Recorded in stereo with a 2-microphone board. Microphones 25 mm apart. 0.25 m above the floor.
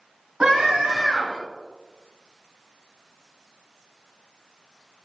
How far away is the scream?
About 1.9 m.